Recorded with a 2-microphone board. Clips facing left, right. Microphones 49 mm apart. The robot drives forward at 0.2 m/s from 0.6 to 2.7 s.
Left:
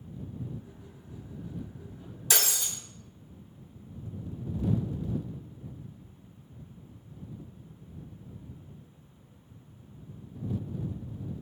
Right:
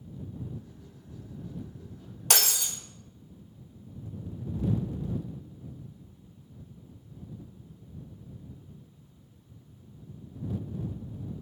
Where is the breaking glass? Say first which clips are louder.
Right 2 dB; 70° right (ahead or behind), 1.0 m.